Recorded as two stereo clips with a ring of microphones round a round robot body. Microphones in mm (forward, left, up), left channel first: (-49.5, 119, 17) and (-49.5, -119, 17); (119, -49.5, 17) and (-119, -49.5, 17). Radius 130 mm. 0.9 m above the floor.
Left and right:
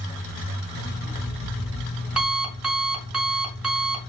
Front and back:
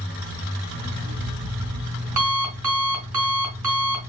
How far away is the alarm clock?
About 3 m.